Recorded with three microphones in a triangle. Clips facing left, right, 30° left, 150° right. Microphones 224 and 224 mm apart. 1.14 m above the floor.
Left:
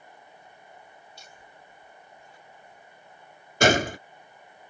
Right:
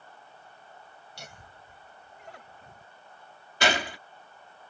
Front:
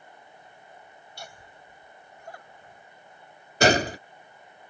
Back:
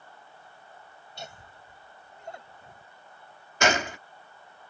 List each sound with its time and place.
1.2 s laughter: 80° right; by 2.9 s 85° right
3.6 s a gunshot: 70° left